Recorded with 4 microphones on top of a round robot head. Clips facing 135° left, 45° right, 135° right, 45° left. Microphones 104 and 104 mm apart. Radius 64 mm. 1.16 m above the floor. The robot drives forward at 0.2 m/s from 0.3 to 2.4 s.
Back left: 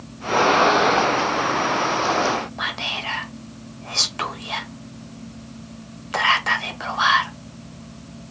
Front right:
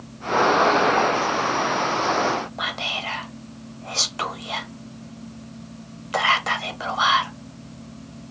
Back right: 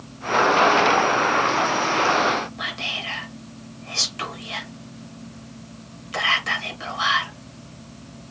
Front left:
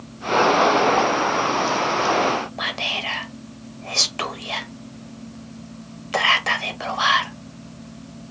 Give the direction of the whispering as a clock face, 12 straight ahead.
11 o'clock.